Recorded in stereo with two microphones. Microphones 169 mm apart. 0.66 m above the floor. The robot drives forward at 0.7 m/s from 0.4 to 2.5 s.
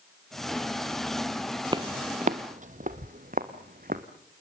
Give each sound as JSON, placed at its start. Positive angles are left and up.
{"t": 1.7, "sound": "footsteps", "side_deg": -25, "distance_m": 0.8}